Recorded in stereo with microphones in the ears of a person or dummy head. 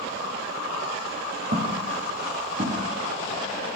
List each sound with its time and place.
1.5 s footsteps: 50° right (ahead or behind), 3.5 m; by 2.8 s 35° right (ahead or behind), 3.5 m